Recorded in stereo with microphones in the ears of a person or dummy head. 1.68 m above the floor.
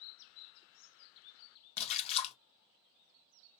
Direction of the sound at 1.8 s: 40° left (ahead or behind).